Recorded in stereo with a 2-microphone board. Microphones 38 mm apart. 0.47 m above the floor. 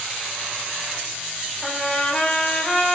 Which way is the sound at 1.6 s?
30° left (ahead or behind).